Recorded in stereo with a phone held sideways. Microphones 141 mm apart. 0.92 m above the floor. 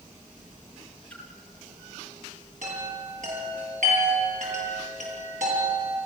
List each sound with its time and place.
1.1 s a splash: 10° left (ahead or behind), 3.5 m
2.6 s a chime: 60° right (ahead or behind), 8.5 m